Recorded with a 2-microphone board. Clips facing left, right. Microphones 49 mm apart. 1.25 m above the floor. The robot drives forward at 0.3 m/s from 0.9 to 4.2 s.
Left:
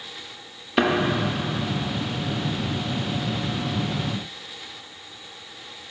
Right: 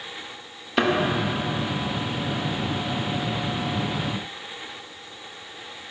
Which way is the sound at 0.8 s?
Centre (ahead or behind).